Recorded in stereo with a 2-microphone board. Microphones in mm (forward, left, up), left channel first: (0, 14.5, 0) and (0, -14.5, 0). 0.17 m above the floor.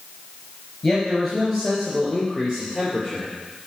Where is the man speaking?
10° left (ahead or behind), 3.5 m; by 3.3 s 10° right (ahead or behind), 4 m.